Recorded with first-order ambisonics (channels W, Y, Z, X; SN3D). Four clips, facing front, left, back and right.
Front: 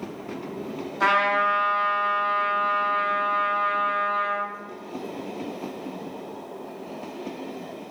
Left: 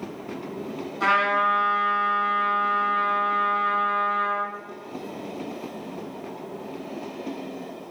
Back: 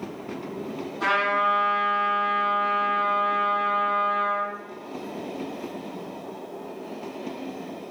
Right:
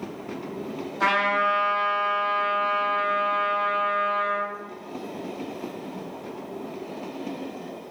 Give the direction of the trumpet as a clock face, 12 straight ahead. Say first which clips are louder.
Left 1 dB, front 2 dB; 1 o'clock.